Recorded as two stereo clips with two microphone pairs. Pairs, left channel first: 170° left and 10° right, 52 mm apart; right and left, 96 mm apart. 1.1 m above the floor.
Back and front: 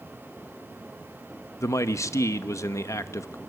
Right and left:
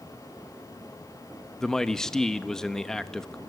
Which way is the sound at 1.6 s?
175° right.